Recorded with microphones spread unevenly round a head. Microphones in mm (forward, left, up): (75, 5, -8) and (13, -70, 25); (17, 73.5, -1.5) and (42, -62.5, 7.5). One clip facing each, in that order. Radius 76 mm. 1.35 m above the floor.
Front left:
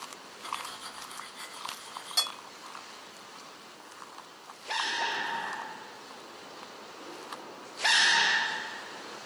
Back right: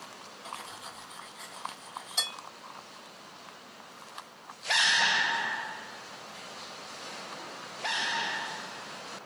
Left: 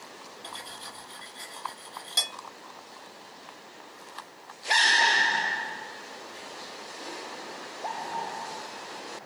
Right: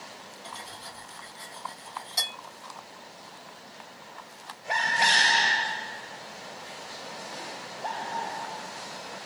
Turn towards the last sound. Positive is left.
turn(degrees=90)